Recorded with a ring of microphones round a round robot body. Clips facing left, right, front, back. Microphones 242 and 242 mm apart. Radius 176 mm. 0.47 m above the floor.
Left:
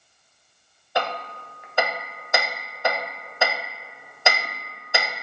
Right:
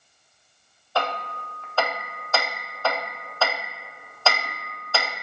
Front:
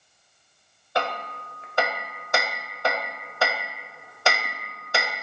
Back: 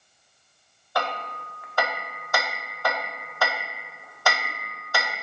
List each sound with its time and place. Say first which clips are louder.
0.9 s hammering: left 1 dB, front 1 dB; 35° left, 0.6 m